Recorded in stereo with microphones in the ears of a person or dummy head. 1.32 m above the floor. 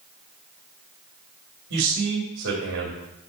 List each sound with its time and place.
1.7 s a man speaking: 60° right (ahead or behind), 2.5 m